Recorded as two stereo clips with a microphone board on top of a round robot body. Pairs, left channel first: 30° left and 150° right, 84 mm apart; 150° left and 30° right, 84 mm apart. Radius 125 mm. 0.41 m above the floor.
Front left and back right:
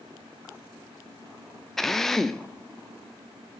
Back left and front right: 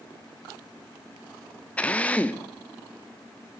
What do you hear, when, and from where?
1.8 s a drill: 110° left, 1.0 m